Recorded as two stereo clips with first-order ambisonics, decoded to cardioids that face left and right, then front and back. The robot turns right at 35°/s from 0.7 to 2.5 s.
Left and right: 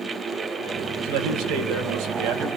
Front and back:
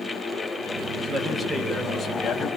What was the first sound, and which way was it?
A man speaking, 120° right.